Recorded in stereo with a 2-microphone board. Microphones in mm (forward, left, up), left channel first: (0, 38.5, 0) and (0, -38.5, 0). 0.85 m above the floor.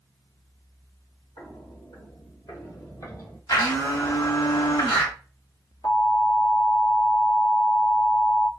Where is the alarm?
60° left (ahead or behind), 1.4 m.